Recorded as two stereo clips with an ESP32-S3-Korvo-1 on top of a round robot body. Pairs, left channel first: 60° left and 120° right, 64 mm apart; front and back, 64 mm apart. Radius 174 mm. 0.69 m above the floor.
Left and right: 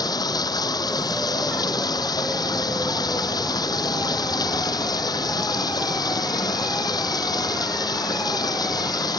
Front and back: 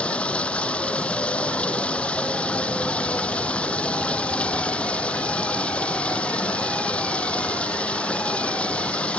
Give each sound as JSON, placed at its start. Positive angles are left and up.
{"t": 0.0, "sound": "running water", "azimuth_deg": 75}